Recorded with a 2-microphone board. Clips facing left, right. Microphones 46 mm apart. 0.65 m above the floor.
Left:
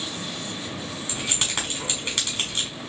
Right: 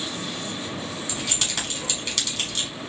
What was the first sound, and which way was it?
Keys jangling, 35° left (ahead or behind).